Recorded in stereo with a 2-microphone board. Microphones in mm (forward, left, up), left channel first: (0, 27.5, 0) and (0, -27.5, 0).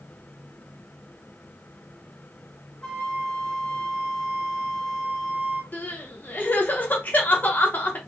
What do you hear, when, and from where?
2.8 s a flute: 15° left (ahead or behind), 1.3 m
5.7 s crying: 35° left (ahead or behind), 0.8 m